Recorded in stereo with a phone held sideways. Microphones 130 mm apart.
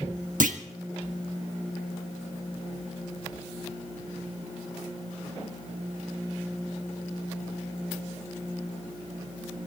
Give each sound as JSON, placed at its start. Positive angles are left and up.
{"t": 0.4, "sound": "a clunk", "side_deg": -90, "distance_m": 1.3}